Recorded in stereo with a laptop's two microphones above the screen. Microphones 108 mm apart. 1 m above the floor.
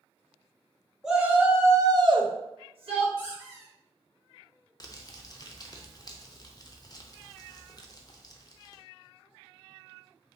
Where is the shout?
5° right (ahead or behind), 1.5 m; by 3.1 s 55° right (ahead or behind), 1.1 m.